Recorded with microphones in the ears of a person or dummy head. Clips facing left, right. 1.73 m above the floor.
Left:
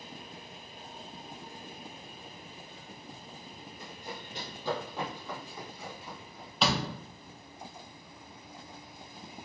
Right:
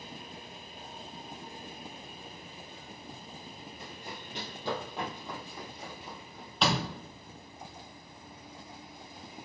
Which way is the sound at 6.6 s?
Centre (ahead or behind).